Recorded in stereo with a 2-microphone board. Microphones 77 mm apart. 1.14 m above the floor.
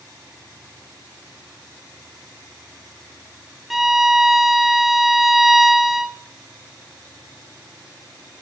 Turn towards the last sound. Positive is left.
turn(degrees=-5)  # may be behind; listen again after turning